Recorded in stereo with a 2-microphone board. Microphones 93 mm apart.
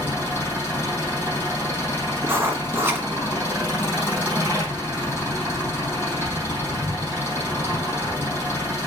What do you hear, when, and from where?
0.0 s an engine running: 25° left (ahead or behind), 4 m
2.2 s writing: 30° right (ahead or behind), 1.3 m